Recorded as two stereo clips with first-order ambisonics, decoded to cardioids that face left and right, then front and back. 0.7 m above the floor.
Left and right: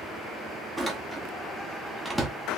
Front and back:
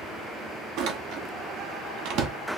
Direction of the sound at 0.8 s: 175° right.